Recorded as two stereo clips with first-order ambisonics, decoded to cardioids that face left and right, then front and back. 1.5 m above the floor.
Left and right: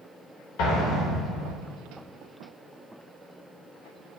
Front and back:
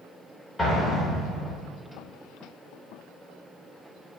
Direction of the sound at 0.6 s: 90° left.